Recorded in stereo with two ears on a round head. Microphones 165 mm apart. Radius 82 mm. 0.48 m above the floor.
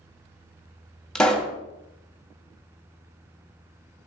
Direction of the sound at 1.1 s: 5° left (ahead or behind).